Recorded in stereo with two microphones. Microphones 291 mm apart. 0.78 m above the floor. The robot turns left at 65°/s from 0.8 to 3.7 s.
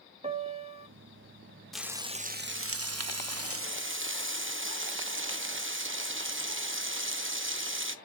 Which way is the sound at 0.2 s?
20° right (ahead or behind).